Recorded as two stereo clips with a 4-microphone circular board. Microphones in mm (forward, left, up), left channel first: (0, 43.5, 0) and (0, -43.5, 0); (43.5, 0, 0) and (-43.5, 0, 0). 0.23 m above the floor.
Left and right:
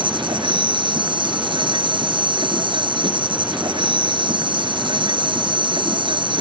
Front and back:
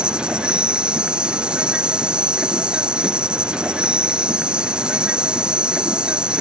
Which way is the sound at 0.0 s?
105° right.